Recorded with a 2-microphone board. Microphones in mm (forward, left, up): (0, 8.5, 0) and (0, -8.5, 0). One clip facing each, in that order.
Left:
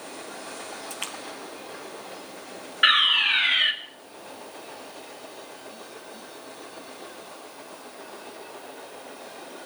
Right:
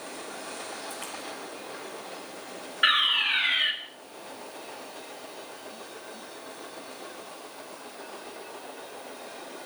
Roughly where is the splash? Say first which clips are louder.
Left 3 dB; left.